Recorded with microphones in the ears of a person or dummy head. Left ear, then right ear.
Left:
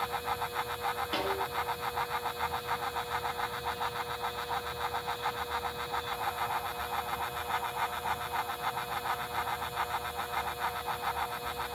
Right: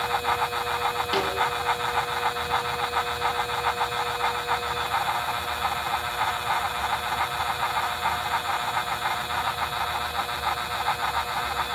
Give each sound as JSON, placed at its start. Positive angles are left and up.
{"t": 1.1, "sound": "a snare drum", "side_deg": -10, "distance_m": 5.5}